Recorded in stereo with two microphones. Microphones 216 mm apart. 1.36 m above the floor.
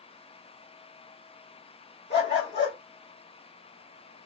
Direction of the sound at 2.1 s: 55° left (ahead or behind).